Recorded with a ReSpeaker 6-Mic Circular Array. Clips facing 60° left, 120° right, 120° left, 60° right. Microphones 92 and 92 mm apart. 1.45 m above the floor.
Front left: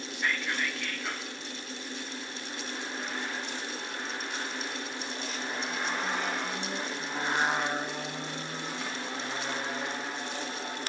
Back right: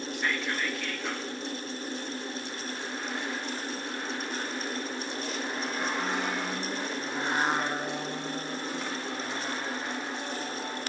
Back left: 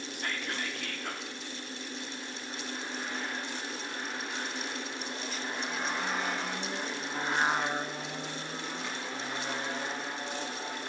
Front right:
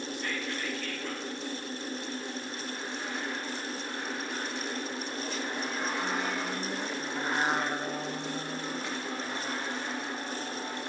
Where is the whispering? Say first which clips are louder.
Even, back left 2 dB; 150° left, 1.0 m.